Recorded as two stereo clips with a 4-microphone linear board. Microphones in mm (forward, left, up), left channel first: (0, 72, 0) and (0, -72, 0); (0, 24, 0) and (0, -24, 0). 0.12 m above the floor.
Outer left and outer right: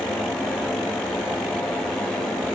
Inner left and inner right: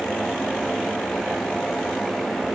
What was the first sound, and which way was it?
Only background noise.